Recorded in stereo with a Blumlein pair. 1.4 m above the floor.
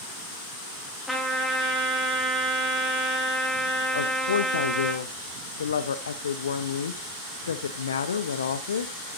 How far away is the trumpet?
About 2.5 m.